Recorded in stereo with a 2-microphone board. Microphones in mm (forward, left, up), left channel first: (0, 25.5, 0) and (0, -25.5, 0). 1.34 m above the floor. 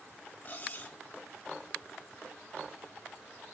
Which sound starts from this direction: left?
Cutlery clinking, at 0.5 s.